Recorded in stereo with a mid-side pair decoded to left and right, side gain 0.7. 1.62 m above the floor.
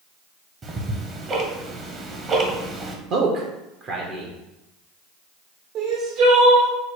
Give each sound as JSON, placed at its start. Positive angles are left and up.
{"t": 0.6, "sound": "ticking", "azimuth_deg": -30, "distance_m": 0.9}
{"t": 3.1, "sound": "a man speaking", "azimuth_deg": -55, "distance_m": 0.9}
{"t": 5.8, "sound": "crying", "azimuth_deg": -60, "distance_m": 1.2}